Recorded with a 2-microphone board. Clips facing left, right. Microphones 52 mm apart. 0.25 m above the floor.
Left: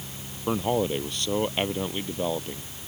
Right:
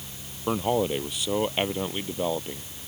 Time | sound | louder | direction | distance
0.5 | a man speaking | even | 5° right (ahead or behind) | ?